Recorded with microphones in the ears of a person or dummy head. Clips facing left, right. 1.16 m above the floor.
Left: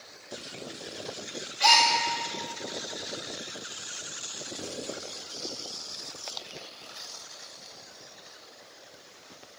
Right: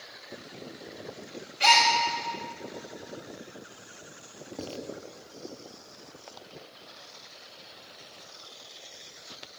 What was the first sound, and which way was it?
A gasp, 25° right (ahead or behind).